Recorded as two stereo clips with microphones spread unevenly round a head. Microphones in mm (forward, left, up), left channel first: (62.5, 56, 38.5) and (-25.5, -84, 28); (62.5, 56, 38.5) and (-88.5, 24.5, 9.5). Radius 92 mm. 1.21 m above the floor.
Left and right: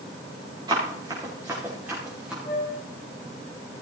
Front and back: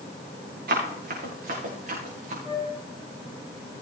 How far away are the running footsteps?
About 5 m.